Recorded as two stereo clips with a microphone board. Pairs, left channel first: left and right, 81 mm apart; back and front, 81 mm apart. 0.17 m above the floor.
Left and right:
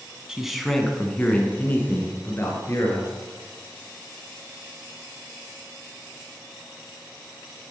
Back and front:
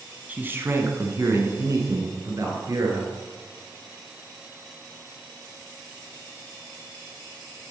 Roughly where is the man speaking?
Ahead right.